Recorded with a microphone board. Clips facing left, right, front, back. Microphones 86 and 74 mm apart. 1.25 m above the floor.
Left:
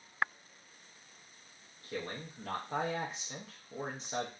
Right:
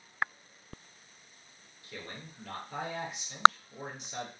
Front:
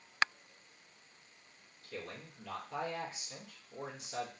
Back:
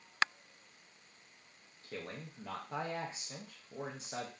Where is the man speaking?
140° left, 0.6 m.